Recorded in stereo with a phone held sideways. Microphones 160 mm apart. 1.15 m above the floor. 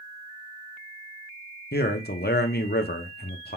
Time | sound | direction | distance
1.7 | a man speaking | 85° left | 0.7 m